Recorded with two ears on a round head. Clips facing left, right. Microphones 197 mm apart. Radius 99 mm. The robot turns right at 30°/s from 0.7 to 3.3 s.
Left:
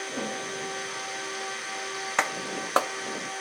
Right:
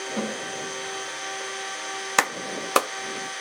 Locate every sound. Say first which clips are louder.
0.2 s a snare drum: right 4 dB; 75° right (ahead or behind), 1.1 m
2.2 s a clap: right 3 dB; 55° right (ahead or behind), 0.6 m; by 2.9 s 35° right (ahead or behind), 0.6 m